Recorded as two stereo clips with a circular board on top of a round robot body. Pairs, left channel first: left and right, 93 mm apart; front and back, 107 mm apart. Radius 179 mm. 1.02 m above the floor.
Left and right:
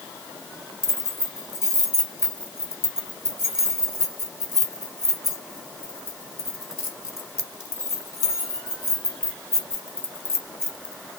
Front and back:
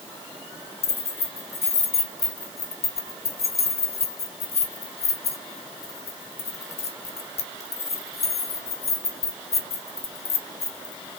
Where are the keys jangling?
20° left, 1.4 m.